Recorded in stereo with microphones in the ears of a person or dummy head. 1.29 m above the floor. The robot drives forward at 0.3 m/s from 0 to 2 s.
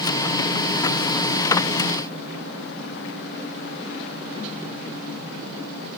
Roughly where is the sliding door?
No sliding door in this recording.